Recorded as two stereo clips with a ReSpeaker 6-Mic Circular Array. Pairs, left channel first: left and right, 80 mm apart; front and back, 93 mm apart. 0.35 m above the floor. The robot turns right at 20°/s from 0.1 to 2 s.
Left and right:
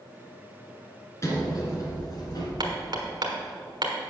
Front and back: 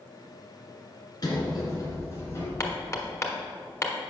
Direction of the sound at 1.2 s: 40° left.